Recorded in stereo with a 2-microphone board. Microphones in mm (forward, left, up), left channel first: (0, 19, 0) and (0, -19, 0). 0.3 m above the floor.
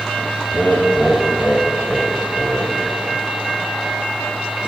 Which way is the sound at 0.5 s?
25° left (ahead or behind).